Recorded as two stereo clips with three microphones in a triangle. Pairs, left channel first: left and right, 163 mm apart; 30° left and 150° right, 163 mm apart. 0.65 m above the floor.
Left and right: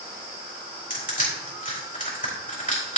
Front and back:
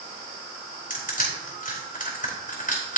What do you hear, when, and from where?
0.9 s crushing: 60° left, 4 m